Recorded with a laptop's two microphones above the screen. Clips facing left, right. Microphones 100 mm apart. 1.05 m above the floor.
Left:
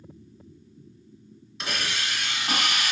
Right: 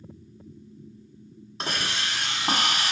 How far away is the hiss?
About 1.6 m.